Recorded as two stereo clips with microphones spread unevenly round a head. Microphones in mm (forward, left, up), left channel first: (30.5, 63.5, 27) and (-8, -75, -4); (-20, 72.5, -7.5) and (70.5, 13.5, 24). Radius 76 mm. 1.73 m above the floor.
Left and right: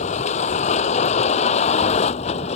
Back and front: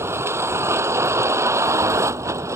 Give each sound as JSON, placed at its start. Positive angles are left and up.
{"t": 0.0, "sound": "a vehicle", "azimuth_deg": 30}